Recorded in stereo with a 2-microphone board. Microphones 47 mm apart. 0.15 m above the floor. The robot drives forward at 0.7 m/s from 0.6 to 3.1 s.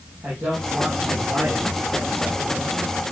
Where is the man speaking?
45° right (ahead or behind), 6 m; by 2.7 s 35° right (ahead or behind), 7 m.